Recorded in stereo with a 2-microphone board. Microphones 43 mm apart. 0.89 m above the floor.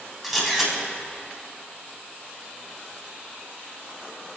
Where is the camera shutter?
5° right (ahead or behind), 5 m.